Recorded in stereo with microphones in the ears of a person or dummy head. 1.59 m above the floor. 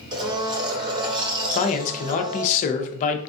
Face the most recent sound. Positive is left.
turn(degrees=45)  # may be behind; listen again after turning